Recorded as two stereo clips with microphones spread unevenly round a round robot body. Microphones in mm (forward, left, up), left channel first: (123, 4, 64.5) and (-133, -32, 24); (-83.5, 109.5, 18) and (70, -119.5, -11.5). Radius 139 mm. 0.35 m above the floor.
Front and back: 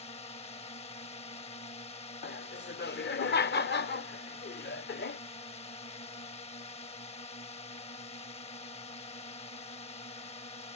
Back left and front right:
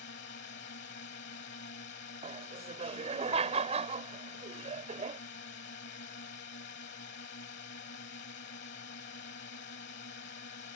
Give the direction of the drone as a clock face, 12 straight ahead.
9 o'clock.